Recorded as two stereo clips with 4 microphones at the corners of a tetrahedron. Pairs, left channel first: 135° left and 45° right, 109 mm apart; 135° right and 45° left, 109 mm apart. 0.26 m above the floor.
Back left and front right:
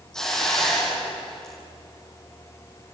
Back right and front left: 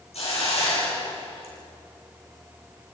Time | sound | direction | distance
0.1 | a hiss | 140° right | 8 m